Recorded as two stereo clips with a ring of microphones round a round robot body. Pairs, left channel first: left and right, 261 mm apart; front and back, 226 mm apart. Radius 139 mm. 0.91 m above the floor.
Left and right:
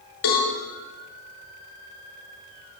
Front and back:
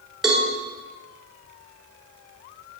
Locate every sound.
0.2 s a cowbell: 90° left, 5 m